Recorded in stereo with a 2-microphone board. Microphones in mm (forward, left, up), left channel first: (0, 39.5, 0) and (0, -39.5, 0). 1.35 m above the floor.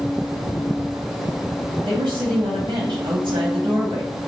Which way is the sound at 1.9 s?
70° right (ahead or behind).